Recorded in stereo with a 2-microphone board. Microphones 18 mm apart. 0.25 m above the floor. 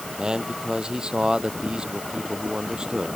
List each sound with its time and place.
0.2 s a man speaking: 50° right (ahead or behind)